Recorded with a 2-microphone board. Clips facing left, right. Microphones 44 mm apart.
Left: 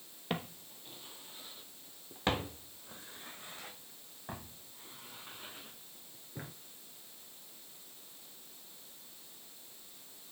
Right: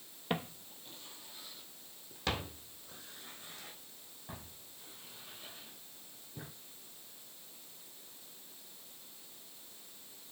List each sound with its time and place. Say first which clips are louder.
0.3 s footsteps: right 1 dB; centre (ahead or behind), 0.8 m; by 6.5 s 40° left (ahead or behind), 4 m